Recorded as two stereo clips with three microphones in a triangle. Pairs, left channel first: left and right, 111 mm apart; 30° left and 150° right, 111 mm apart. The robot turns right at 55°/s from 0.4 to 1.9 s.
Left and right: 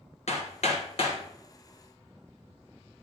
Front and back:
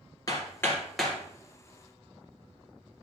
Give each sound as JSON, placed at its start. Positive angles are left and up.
{"t": 0.3, "sound": "hammering", "azimuth_deg": 85, "distance_m": 3.0}